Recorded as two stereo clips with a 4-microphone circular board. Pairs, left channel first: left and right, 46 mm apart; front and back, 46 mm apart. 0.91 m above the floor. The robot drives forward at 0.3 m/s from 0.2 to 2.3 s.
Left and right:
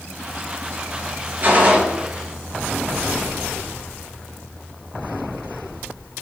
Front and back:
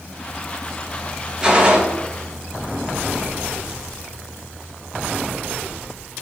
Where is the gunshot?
120° right, 0.6 m; by 1.8 s 130° right, 0.6 m.